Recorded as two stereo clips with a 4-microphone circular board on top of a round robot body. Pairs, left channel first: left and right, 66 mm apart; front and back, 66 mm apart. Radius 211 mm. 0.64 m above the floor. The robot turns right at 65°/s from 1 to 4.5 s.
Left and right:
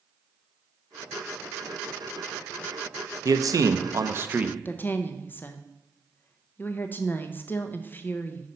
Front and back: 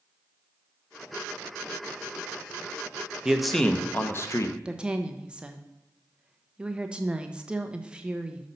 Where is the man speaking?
100° right, 0.8 m; by 4.5 s 20° right, 0.8 m.